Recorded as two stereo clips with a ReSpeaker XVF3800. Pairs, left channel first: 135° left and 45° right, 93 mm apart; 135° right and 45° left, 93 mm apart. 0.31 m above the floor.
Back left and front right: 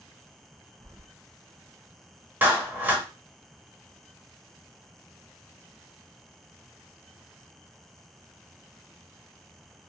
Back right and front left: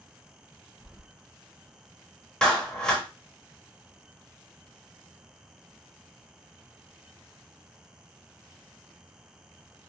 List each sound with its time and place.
0.8 s keys jangling: 35° right, 0.7 m
2.4 s a clap: 70° right, 1.0 m